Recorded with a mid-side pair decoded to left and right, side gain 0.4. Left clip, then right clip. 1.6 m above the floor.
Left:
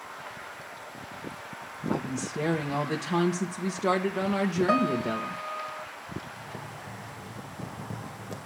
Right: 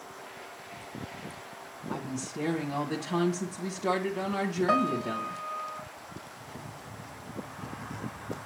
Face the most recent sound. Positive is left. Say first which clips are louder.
# left 4 dB
turn(degrees=65)